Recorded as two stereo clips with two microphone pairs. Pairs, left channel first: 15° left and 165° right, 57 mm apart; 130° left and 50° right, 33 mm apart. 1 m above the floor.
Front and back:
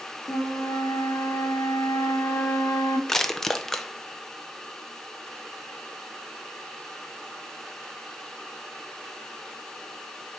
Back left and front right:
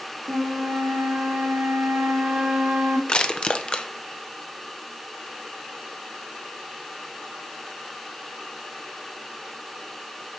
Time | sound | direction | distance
0.3 | a flute | 15° right | 1.3 m
3.1 | crushing | 95° left | 0.7 m